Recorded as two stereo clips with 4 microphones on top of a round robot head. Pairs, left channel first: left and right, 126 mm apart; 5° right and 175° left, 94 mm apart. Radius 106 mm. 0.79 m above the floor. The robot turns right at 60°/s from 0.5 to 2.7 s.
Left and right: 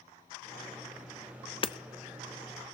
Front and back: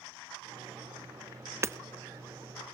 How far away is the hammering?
About 1.0 m.